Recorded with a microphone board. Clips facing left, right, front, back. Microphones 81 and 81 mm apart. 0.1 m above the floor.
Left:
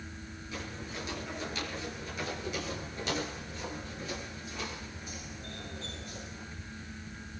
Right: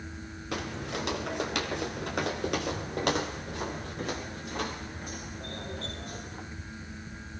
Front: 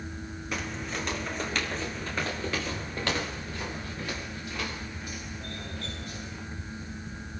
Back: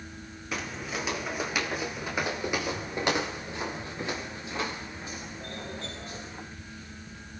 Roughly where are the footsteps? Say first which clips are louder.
Right 7 dB, even; right.